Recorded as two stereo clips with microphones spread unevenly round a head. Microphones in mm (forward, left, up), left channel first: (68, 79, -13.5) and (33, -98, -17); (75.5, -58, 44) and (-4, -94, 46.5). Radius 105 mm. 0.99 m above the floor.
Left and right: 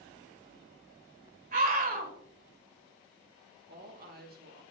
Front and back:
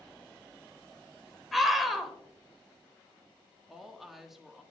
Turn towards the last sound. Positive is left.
turn(degrees=-70)